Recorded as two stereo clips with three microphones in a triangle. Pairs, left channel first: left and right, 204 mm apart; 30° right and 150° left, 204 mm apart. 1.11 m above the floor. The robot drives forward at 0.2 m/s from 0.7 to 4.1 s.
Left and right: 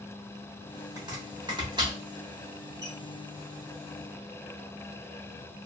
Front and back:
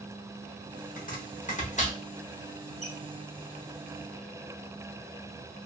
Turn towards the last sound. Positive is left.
turn(degrees=-50)